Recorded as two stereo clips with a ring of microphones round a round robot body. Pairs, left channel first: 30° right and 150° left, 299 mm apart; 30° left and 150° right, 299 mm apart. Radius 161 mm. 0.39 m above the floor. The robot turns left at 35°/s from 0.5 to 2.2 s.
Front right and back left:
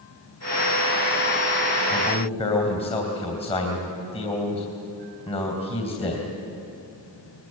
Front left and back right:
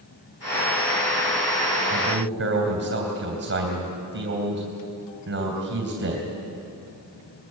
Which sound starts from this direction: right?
A man speaking, at 1.9 s.